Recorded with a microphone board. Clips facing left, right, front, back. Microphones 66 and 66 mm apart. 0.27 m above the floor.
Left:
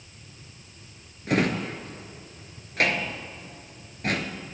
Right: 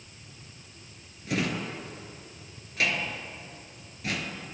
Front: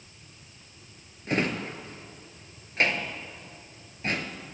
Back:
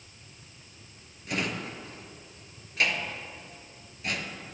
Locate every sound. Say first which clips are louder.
1.3 s a drawer: left 5 dB, front 4 dB; 50° left, 1.0 m